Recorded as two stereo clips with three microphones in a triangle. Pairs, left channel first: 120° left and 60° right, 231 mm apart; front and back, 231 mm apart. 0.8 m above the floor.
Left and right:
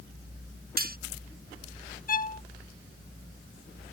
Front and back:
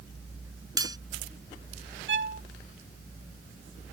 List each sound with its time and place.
0.8 s cutlery clinking: 105° right
2.1 s a violin: 165° left